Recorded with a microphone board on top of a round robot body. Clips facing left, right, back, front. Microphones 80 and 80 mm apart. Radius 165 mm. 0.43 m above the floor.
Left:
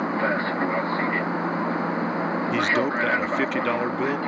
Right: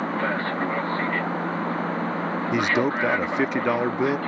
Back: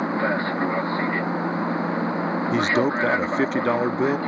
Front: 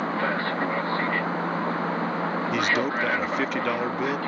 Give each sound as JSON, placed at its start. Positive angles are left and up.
{"t": 0.0, "sound": "an aircraft", "azimuth_deg": 150}
{"t": 2.5, "sound": "a man speaking", "azimuth_deg": -150}